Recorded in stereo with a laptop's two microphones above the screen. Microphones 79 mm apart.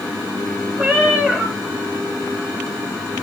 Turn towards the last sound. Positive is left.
turn(degrees=-15)  # may be behind; listen again after turning